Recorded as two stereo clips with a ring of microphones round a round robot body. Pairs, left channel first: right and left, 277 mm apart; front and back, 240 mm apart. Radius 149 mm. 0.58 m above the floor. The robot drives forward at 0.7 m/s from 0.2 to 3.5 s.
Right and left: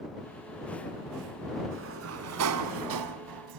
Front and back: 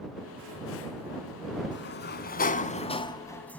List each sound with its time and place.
1.7 s a sliding door: 45° left, 1.9 m; by 3.6 s 85° left, 1.3 m